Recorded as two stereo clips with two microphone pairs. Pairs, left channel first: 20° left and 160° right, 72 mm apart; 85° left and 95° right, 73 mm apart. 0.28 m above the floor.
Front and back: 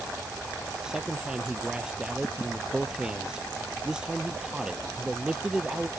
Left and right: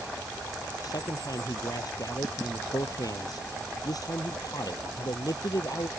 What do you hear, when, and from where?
0.8 s a man speaking: 120° left